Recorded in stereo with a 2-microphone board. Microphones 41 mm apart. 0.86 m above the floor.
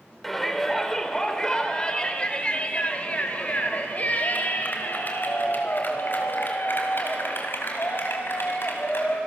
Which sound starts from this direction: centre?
A shout, at 0.2 s.